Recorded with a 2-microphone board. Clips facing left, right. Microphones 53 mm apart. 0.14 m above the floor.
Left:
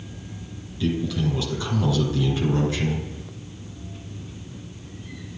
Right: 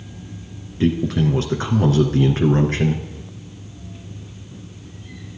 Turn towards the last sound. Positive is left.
turn(degrees=-50)  # may be behind; listen again after turning